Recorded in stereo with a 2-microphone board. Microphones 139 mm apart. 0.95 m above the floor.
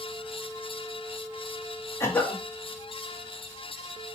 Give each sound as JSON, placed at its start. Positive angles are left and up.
{"t": 2.0, "sound": "a cough", "side_deg": 20, "distance_m": 1.3}